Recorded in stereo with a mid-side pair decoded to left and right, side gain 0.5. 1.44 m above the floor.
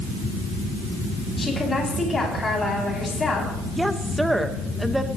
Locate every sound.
1.4 s a woman speaking: 25° left, 8.5 m
3.7 s a woman speaking: 5° right, 1.9 m